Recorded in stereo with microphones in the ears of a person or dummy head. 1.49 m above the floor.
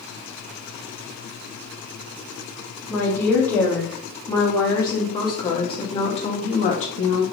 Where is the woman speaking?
10° left (ahead or behind), 3.5 m; by 7.2 s 45° left (ahead or behind), 2.5 m.